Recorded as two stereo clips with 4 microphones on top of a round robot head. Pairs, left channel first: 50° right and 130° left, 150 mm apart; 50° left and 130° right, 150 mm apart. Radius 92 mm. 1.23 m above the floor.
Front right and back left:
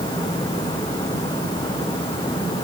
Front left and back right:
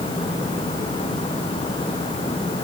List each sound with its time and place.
Only background noise.